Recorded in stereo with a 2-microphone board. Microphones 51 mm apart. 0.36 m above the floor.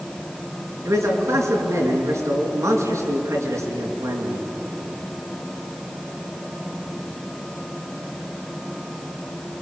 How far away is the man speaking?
About 5.5 m.